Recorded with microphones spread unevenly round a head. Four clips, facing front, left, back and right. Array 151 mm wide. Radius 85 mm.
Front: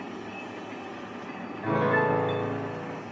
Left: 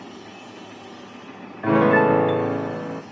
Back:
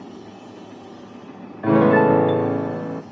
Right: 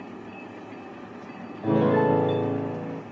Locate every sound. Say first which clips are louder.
1.6 s a piano: left 4 dB, back 10 dB; 170° right, 0.8 m